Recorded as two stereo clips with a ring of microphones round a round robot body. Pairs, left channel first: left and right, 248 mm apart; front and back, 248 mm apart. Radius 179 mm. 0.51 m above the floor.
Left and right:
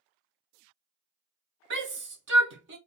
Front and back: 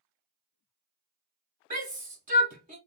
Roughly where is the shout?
Behind right.